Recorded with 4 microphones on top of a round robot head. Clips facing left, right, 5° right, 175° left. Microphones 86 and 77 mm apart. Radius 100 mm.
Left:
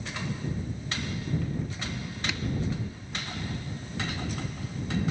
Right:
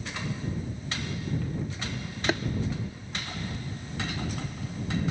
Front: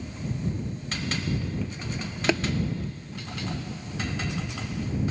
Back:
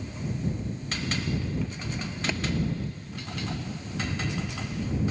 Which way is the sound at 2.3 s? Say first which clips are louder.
Right 11 dB, front 9 dB; 35° right.